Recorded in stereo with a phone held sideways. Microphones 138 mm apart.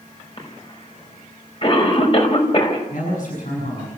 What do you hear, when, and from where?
0.4 s a cough: 40° left (ahead or behind), 5 m
2.9 s a man speaking: 70° left (ahead or behind), 7.5 m